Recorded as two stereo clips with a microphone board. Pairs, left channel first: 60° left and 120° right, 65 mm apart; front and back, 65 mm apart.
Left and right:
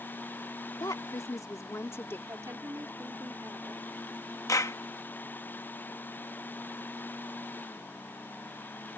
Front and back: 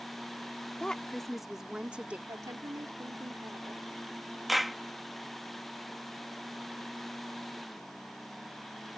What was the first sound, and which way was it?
A woman speaking, 75° left.